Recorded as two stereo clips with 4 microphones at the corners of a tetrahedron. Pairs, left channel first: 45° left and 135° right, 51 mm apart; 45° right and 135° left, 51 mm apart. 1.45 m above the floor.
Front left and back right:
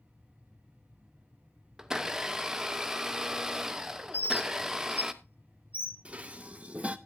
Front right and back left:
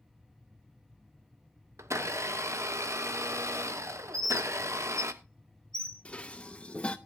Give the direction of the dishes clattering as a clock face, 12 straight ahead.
3 o'clock.